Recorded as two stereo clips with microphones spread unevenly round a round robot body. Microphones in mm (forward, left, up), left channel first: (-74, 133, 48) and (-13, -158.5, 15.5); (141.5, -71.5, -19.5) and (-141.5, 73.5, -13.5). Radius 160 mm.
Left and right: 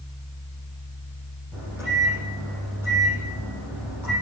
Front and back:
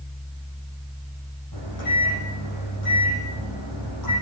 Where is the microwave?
5° left, 10 m.